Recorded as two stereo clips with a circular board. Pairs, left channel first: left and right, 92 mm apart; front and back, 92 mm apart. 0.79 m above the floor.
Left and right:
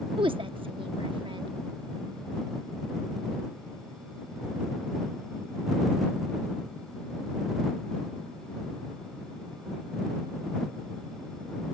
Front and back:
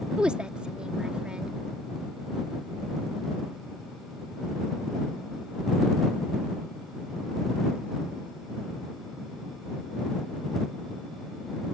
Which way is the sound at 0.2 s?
100° right.